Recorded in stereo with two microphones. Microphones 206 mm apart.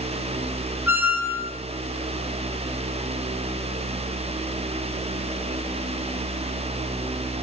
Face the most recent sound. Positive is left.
turn(degrees=-10)  # may be behind; listen again after turning